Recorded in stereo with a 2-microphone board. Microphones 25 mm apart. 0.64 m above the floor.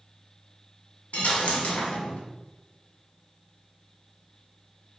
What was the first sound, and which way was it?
A dropped coin, 75° left (ahead or behind).